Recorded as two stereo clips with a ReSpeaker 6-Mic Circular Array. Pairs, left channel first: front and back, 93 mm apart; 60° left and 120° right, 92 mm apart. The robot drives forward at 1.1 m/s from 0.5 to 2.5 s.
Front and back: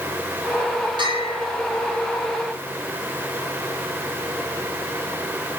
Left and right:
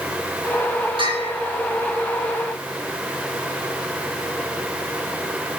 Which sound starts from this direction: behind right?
A bell, at 1.0 s.